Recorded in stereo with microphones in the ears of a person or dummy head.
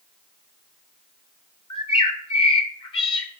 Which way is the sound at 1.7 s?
25° left (ahead or behind).